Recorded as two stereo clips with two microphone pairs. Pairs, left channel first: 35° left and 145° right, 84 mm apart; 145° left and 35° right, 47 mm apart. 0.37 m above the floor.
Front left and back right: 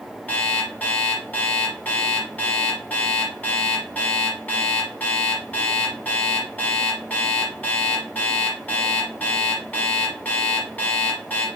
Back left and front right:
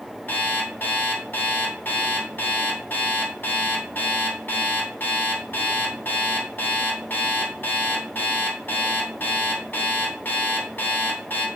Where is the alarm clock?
105° left, 1.5 m.